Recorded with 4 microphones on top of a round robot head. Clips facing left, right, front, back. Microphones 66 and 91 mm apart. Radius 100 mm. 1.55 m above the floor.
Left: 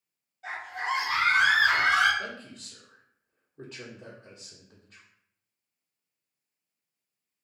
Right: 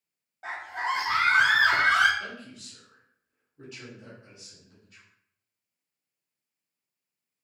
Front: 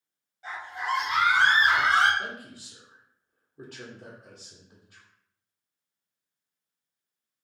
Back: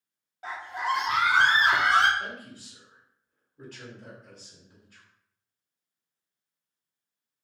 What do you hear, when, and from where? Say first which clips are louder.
0.4 s a scream: right 2 dB, back 2 dB; 135° right, 0.5 m
2.2 s a man speaking: left 1 dB, even; 45° left, 1.3 m